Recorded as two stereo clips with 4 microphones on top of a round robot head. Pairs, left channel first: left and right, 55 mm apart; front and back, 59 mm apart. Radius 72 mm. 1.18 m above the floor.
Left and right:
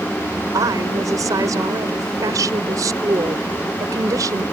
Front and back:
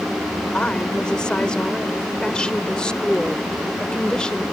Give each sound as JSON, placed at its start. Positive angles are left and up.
{"t": 0.5, "sound": "a woman speaking", "azimuth_deg": -80}